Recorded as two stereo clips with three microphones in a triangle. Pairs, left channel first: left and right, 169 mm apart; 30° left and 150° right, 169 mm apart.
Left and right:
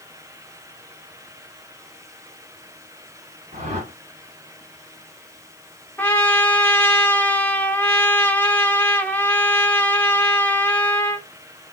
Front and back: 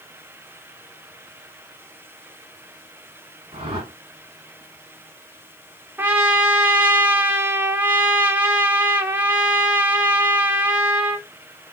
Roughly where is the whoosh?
Right.